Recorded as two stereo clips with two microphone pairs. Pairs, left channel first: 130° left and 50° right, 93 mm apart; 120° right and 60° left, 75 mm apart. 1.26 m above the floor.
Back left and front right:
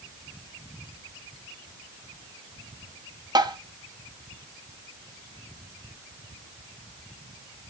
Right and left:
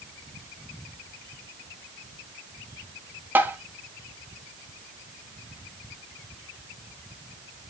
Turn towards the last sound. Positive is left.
turn(degrees=-5)